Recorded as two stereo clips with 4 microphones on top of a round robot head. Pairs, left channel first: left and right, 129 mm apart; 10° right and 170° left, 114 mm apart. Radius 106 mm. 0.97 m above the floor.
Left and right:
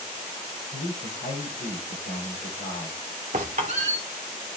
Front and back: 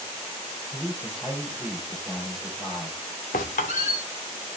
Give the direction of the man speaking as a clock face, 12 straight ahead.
9 o'clock.